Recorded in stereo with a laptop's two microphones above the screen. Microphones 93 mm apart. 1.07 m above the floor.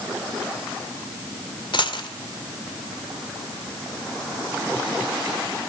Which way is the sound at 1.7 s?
60° left (ahead or behind).